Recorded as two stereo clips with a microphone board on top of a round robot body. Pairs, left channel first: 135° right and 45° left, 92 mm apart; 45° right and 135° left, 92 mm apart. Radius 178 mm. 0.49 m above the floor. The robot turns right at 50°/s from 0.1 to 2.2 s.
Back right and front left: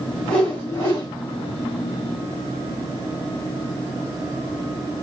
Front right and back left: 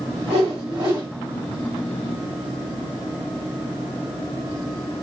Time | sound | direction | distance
0.2 | a whoosh | 140° left | 2.5 m